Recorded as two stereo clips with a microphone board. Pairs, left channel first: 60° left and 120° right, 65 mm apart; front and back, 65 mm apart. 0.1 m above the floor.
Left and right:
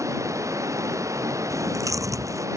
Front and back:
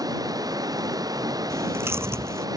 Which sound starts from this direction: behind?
Running water, at 0.0 s.